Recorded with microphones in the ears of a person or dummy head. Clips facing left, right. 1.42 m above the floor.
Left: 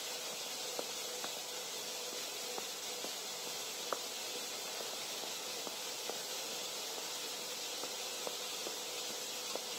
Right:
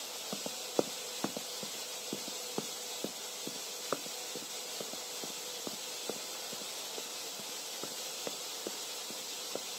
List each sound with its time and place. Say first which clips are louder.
0.3 s running footsteps: right 14 dB; 65° right (ahead or behind); by 9.8 s 30° right (ahead or behind)